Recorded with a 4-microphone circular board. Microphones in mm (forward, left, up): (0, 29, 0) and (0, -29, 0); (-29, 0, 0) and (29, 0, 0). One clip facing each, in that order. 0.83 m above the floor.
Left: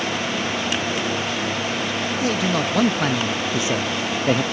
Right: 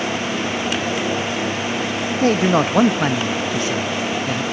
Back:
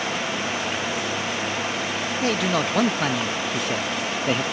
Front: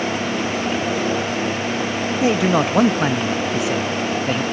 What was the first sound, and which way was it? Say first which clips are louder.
A man speaking: right 7 dB, front 6 dB; 60° right.